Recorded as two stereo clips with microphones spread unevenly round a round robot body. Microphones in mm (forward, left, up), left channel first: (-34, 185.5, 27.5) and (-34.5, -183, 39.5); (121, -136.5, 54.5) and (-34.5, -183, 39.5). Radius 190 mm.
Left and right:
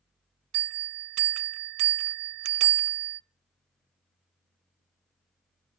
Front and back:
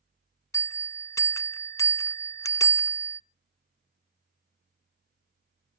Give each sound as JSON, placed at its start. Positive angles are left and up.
{"t": 0.5, "sound": "a bell", "azimuth_deg": -60, "distance_m": 0.7}